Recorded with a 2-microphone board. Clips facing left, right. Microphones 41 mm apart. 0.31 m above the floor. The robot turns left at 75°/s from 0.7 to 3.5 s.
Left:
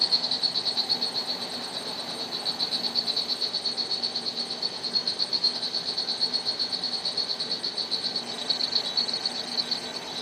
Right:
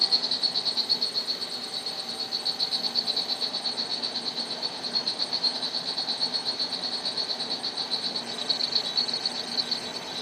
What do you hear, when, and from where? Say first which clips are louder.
0.0 s an insect: even; 175° left, 1.1 m; by 10.2 s 35° right, 1.1 m